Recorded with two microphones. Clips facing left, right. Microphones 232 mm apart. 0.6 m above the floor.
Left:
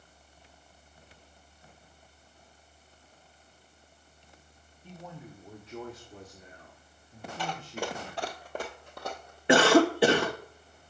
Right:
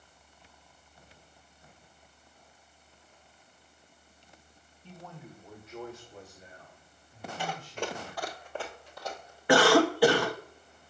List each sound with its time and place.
4.8 s a man speaking: 10° left (ahead or behind), 1.3 m; by 8.4 s 65° left (ahead or behind), 2 m
7.4 s running footsteps: 15° right (ahead or behind), 1.0 m; by 9.4 s 60° left (ahead or behind), 1.6 m
9.5 s a cough: 20° left (ahead or behind), 0.7 m